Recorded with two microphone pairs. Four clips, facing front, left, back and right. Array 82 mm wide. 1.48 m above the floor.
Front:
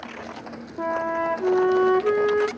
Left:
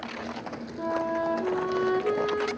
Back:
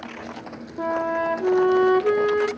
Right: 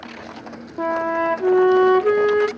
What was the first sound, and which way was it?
A flute, 95° right.